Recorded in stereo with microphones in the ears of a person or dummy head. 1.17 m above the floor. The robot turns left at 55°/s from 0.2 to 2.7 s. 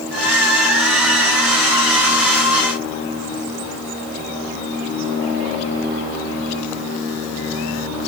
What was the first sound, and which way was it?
Only background noise.